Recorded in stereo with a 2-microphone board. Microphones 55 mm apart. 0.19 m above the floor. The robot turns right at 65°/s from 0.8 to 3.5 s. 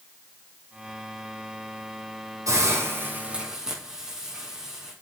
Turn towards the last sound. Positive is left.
turn(degrees=-10)